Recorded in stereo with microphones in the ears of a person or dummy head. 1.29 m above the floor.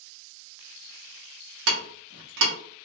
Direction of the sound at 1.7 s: 80° right.